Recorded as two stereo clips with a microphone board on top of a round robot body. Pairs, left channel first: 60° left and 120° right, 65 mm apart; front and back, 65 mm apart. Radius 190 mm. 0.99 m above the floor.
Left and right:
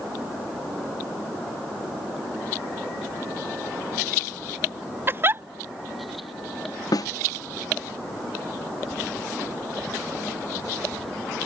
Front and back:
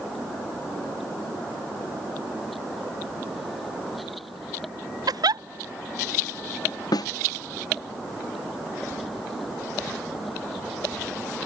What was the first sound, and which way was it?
A giggle, 175° right.